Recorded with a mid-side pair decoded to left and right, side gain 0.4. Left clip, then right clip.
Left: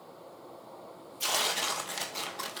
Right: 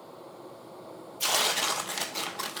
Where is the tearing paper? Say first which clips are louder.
Right 3 dB; 30° right, 1.1 m.